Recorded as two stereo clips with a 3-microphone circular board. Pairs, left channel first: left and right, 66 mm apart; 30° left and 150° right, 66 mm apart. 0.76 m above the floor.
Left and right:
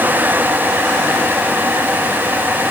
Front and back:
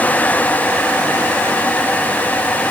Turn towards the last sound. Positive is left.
No sound to turn to.